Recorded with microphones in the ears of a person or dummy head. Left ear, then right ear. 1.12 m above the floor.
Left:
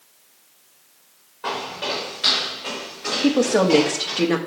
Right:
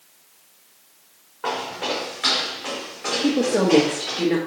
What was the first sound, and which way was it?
Footsteps, 20° right (ahead or behind).